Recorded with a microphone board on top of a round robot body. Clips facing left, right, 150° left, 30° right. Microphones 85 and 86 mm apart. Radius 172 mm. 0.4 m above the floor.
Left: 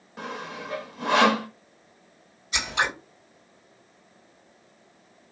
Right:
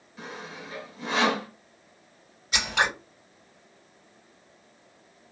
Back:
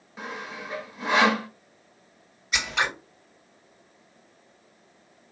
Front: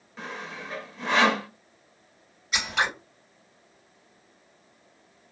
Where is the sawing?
70° left, 0.7 m.